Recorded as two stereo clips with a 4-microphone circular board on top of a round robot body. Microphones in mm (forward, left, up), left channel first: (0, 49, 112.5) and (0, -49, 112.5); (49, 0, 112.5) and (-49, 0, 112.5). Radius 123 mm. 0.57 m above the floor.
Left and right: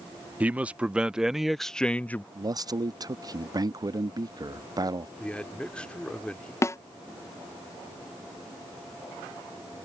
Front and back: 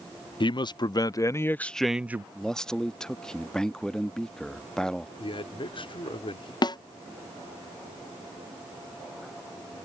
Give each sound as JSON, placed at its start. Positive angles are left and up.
{"t": 0.4, "sound": "a man speaking", "azimuth_deg": -20}
{"t": 2.4, "sound": "a man speaking", "azimuth_deg": -80}
{"t": 5.2, "sound": "a man speaking", "azimuth_deg": 10}
{"t": 6.6, "sound": "a snare drum", "azimuth_deg": 35}